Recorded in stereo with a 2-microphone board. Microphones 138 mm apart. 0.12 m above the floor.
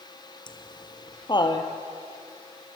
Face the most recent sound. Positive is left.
turn(degrees=35)  # may be behind; listen again after turning